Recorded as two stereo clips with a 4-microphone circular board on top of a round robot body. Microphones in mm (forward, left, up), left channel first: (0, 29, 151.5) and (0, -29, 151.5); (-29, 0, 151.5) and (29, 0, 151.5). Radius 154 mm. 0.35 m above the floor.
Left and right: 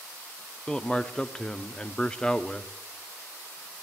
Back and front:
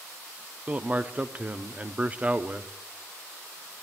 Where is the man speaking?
30° left, 0.9 m.